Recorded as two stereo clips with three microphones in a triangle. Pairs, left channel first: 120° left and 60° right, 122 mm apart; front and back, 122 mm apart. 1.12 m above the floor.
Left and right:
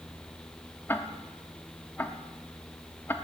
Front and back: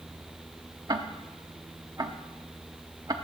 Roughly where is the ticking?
Behind.